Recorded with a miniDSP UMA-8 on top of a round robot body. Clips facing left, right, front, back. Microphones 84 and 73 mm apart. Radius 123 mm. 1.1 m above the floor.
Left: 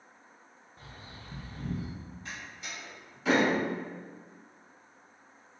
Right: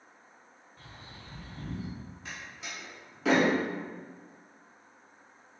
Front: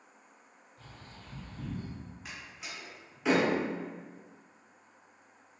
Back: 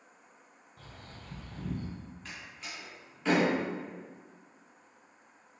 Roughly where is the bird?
Behind.